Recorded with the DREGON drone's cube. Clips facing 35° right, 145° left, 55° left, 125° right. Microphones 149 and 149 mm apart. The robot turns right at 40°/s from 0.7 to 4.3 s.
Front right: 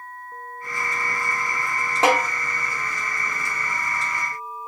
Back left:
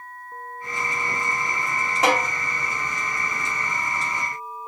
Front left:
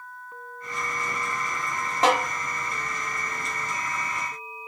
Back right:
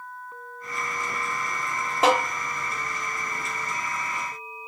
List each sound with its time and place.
2.0 s a snare drum: 45° right, 1.3 m; by 2.2 s 40° right, 1.3 m